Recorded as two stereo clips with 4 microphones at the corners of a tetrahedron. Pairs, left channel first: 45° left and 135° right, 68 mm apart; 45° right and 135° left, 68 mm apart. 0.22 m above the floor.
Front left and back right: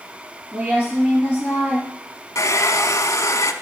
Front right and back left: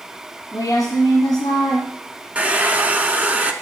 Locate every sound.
0.5 s a woman speaking: 70° right, 5.5 m
2.4 s a hair dryer: 70° left, 0.7 m